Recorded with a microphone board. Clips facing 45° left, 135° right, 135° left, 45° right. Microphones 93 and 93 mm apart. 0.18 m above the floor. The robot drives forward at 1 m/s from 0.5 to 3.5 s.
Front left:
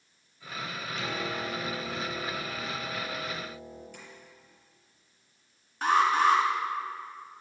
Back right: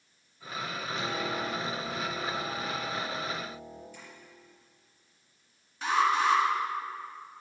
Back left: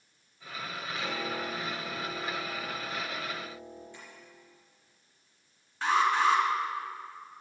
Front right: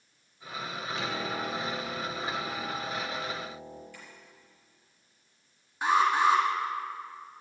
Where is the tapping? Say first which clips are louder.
Front left 1 dB, even; 70° left, 4.5 m.